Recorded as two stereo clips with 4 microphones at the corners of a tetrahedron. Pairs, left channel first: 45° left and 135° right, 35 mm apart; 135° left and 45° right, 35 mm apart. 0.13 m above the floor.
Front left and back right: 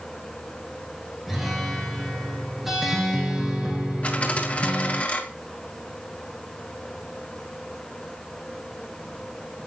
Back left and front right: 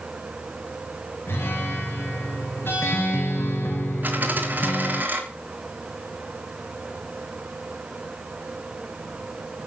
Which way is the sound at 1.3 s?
145° left.